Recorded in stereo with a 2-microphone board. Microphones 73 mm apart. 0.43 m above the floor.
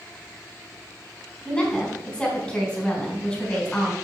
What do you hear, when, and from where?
1.4 s a woman speaking: 15° left (ahead or behind), 3.5 m